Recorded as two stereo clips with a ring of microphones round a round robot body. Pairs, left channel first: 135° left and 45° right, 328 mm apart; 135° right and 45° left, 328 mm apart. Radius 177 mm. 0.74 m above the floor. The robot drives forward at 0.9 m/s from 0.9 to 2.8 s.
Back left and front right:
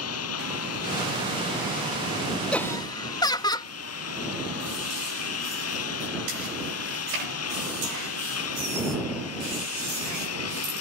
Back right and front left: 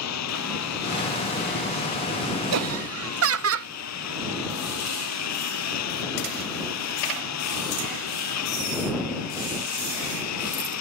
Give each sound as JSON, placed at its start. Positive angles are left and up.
{"t": 0.0, "sound": "a lawn mower", "azimuth_deg": 180}
{"t": 2.5, "sound": "laughter", "azimuth_deg": 50}